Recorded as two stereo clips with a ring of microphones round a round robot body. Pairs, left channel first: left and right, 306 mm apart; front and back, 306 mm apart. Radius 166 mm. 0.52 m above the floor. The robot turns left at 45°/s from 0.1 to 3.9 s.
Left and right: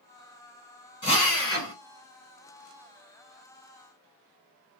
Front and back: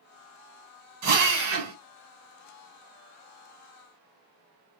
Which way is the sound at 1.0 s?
165° left.